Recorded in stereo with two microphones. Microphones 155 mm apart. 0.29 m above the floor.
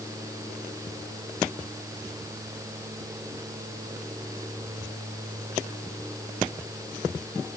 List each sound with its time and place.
Only background noise.